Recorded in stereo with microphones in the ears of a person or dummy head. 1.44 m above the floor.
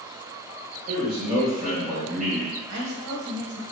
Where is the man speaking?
45° right (ahead or behind), 1.8 m.